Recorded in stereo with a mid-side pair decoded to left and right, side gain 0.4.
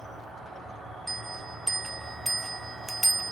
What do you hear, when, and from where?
0.0 s an insect: 65° right, 2.5 m
1.1 s a bell: 15° right, 0.5 m